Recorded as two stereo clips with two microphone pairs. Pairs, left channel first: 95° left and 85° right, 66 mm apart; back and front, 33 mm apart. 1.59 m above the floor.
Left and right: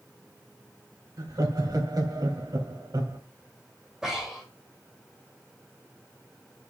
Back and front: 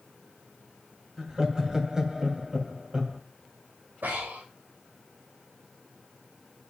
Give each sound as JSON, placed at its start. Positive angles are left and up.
{"t": 1.2, "sound": "laughter", "azimuth_deg": -70, "distance_m": 2.5}
{"t": 4.0, "sound": "breathing", "azimuth_deg": -5, "distance_m": 3.5}